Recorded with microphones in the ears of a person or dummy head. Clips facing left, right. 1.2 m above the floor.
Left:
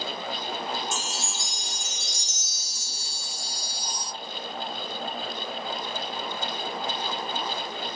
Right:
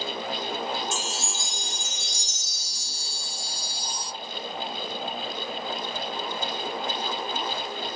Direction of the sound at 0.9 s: 65° right (ahead or behind).